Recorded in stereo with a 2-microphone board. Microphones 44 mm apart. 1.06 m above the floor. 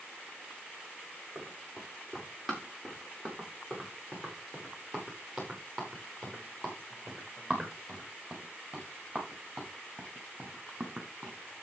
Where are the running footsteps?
10° left (ahead or behind), 8.5 m; by 11.6 s 25° right (ahead or behind), 4.5 m.